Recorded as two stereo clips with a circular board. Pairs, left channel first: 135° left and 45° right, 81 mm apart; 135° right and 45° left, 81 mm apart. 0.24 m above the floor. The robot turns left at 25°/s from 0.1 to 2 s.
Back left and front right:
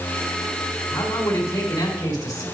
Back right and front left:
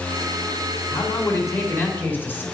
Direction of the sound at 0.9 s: 170° right.